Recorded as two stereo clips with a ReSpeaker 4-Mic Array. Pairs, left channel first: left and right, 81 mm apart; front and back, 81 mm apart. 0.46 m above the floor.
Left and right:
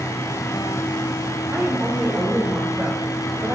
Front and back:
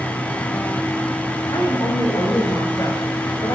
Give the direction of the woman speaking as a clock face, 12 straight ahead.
1 o'clock.